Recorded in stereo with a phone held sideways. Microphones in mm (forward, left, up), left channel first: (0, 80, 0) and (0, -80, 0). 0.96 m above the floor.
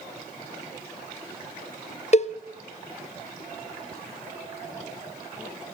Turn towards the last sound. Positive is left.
turn(degrees=45)  # may be behind; listen again after turning